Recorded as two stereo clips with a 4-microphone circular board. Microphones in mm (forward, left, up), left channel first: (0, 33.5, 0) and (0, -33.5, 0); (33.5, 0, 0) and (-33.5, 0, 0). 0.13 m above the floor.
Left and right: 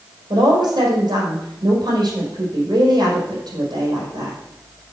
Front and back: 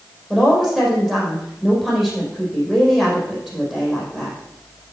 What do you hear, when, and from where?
0.3 s a woman speaking: 95° right, 4.5 m